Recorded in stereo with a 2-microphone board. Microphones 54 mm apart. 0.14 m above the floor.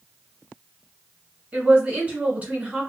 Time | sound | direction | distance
1.5 | a woman speaking | 30° right (ahead or behind) | 1.8 m